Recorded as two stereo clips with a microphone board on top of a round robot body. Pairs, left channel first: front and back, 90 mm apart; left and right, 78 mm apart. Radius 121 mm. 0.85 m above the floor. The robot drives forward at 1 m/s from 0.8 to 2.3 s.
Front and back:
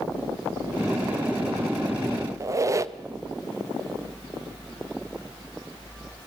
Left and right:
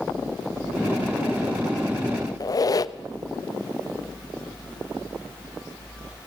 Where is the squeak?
125° left, 0.7 m.